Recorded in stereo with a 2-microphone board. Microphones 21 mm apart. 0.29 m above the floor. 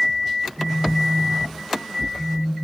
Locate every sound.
0.6 s a phone buzzing: 30° right (ahead or behind), 4 m